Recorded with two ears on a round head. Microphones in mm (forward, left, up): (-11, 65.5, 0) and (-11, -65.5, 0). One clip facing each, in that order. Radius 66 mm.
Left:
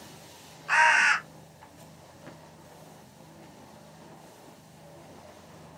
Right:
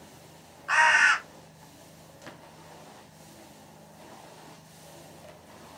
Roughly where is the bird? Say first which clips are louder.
Even; centre.